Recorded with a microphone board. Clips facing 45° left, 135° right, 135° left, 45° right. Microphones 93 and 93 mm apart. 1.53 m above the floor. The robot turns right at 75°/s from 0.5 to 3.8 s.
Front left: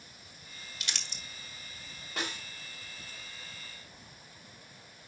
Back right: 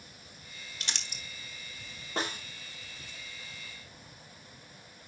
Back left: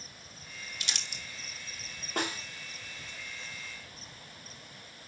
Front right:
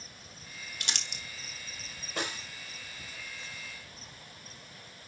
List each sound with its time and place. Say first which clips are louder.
0.8 s crumpling: back right 1 dB, front right 2 dB; 80° right, 1.8 m; by 1.2 s 50° right, 1.8 m
2.2 s a snare drum: back right 4 dB, back left 3 dB; 170° left, 2.5 m; by 2.4 s 170° right, 2.5 m